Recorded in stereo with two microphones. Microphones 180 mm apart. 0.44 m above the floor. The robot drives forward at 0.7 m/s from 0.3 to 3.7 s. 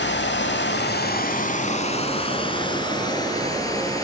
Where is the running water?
80° left, 0.8 m; by 4.0 s 20° left (ahead or behind), 2.5 m.